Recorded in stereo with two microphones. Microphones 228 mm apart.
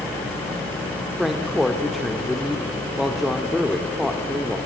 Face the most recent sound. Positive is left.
turn(degrees=0)  # may be behind; listen again after turning